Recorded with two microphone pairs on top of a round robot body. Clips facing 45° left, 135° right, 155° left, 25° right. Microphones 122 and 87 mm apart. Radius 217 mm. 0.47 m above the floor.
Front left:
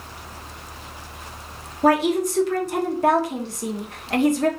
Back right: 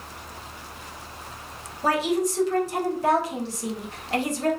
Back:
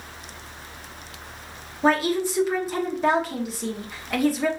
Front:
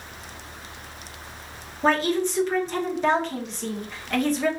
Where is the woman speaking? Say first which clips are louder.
Front left 5 dB, back 1 dB; 70° left, 1.2 m.